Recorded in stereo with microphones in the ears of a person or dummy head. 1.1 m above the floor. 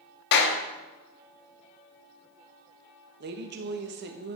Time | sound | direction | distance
0.3 | a clap | 55° left (ahead or behind) | 1.3 m
3.2 | a woman speaking | 45° right (ahead or behind) | 1.1 m